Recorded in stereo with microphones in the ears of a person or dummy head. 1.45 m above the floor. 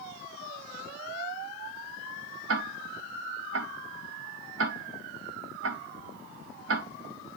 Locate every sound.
2.5 s ticking: 80° right, 1.6 m